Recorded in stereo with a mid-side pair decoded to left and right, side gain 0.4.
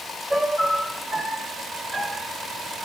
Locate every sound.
0.3 s a piano: 30° right, 4 m